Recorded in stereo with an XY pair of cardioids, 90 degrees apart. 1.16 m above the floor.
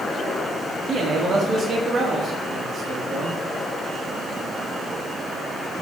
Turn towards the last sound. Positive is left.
turn(degrees=-60)